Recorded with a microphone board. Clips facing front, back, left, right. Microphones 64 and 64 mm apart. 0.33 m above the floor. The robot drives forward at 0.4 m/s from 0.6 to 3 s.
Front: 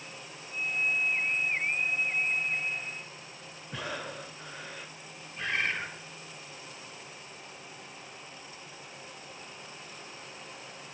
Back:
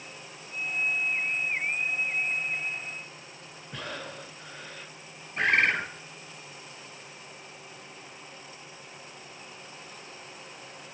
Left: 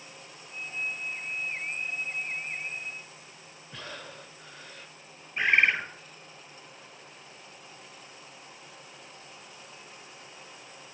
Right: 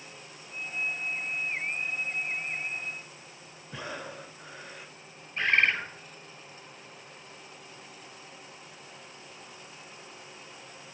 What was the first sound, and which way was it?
Breathing, 65° right.